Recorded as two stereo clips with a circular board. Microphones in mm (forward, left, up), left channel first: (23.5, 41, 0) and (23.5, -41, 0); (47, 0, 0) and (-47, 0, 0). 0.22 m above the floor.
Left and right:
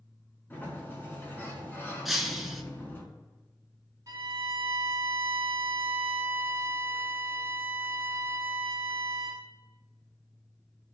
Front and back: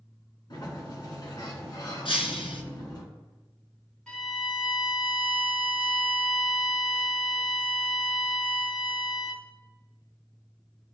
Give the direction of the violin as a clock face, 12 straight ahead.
3 o'clock.